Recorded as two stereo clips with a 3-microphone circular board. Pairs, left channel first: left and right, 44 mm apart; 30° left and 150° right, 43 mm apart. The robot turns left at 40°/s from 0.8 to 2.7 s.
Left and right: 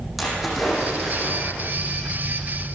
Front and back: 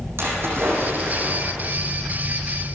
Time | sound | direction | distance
0.2 | a splash | straight behind | 9.5 m